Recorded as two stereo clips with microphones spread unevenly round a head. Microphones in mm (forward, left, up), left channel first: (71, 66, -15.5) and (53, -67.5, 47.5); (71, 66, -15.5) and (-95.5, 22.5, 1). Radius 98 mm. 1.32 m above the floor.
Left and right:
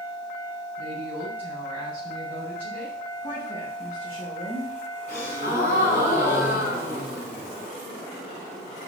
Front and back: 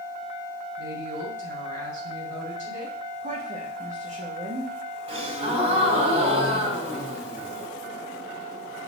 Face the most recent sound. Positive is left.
turn(degrees=140)